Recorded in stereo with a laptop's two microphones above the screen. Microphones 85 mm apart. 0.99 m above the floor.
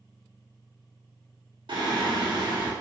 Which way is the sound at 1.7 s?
70° right (ahead or behind).